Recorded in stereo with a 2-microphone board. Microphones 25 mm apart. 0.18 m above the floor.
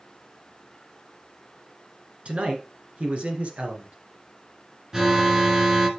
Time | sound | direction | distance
2.2 | a man speaking | 55° right (ahead or behind) | 1.9 m
4.9 | an alarm | 25° right (ahead or behind) | 1.3 m